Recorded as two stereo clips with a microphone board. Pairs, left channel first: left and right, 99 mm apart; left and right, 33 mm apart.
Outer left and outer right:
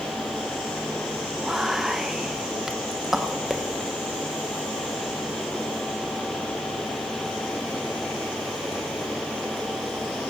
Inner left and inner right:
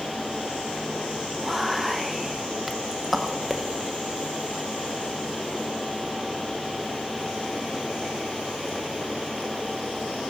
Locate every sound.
1.4 s whispering: 5° right (ahead or behind), 0.9 m